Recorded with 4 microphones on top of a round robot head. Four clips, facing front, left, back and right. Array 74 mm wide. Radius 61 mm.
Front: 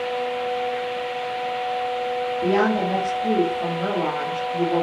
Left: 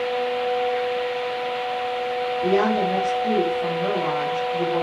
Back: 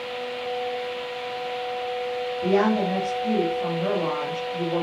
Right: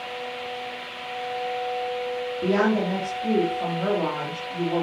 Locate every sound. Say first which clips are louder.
2.4 s a woman speaking: left 1 dB, even; 35° right, 4 m